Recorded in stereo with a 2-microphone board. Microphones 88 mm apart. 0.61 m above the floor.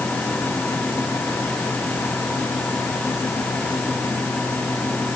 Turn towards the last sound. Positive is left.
No sound to turn to.